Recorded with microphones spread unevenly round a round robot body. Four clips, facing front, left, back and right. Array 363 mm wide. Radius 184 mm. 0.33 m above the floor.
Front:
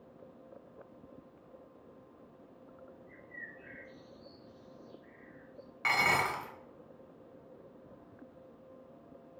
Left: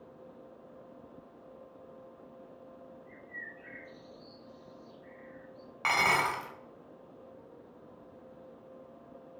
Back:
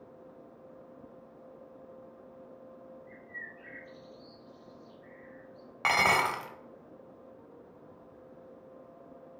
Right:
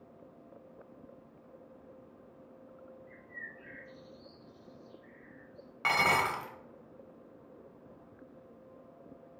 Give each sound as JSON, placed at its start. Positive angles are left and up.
{"t": 3.1, "sound": "a bird", "azimuth_deg": 175, "distance_m": 2.5}
{"t": 5.8, "sound": "dishes clattering", "azimuth_deg": -175, "distance_m": 1.3}